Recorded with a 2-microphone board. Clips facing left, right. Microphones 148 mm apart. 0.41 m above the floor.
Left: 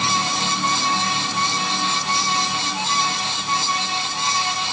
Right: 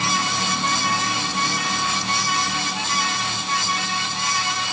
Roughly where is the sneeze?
No sneeze in this recording.